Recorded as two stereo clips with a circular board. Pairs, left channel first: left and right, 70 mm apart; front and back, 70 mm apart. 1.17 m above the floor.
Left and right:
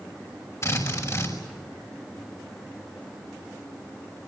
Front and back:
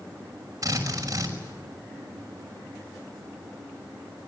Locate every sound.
0.6 s a drill: 140° left, 5.5 m